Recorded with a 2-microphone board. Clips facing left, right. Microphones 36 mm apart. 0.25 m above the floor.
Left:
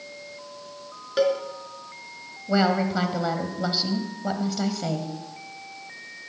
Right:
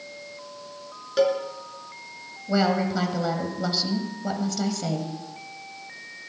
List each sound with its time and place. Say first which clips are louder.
1.2 s a cowbell: even; 10° left (ahead or behind), 3 m
2.5 s a woman speaking: left 1 dB; 15° left (ahead or behind), 1.6 m